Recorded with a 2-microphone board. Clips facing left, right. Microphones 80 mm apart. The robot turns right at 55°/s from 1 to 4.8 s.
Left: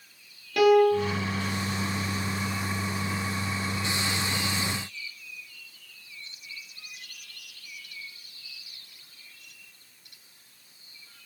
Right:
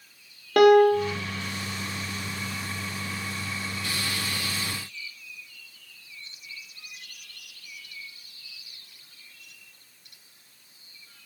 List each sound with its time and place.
0.6 s a piano: 55° right (ahead or behind), 1.8 m; by 1.2 s 60° right (ahead or behind), 1.8 m